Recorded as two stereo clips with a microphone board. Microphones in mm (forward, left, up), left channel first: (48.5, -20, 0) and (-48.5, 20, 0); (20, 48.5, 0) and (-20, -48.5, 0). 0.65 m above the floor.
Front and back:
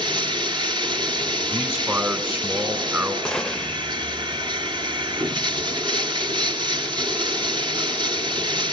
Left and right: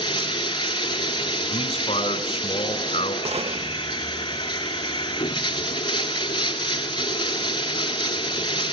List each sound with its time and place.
0.0 s running water: 115° left, 2 m
1.5 s a man speaking: 90° left, 2.5 m
3.2 s a gunshot: 105° right, 1.0 m